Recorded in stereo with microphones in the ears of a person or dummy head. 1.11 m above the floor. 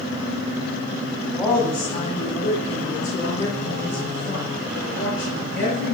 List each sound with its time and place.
1.3 s a woman speaking: 5° left (ahead or behind), 1.3 m; by 5.9 s 90° left, 6.5 m